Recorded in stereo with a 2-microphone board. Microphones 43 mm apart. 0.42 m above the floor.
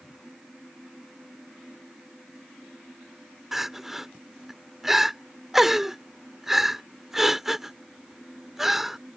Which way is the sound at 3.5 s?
10° right (ahead or behind).